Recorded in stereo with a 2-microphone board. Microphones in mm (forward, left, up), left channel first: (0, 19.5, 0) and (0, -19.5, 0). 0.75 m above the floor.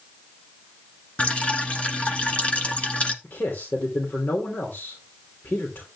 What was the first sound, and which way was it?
Dripping, 35° left (ahead or behind).